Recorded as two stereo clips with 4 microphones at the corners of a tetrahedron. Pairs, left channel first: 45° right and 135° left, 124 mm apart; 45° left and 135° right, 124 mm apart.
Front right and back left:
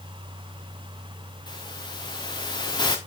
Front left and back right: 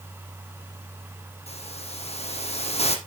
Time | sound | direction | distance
1.5 | a hiss | 10° left | 1.9 m